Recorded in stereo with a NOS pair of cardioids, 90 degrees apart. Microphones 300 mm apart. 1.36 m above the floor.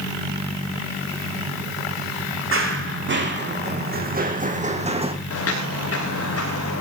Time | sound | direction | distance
2.5 | running footsteps | 45° right | 5.5 m
5.3 | footsteps | 50° left | 6.5 m